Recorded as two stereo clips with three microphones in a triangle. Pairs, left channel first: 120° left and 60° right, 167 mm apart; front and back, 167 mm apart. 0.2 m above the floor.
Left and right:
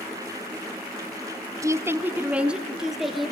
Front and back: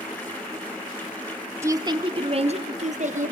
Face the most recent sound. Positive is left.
turn(degrees=-150)